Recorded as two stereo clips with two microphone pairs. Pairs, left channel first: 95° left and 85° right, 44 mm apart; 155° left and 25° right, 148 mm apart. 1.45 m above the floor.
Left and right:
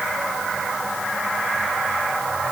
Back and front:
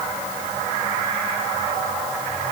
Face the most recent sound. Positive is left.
No sound to turn to.